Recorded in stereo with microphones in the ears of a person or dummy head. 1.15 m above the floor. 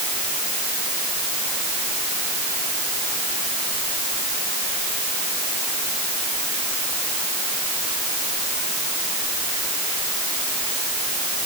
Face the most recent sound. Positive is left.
No sound to turn to.